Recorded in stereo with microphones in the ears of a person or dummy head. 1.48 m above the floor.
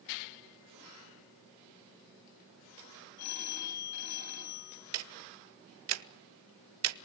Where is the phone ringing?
90° left, 8.5 m.